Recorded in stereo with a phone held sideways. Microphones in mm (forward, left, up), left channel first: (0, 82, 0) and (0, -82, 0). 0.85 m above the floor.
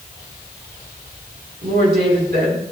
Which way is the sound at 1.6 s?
85° right.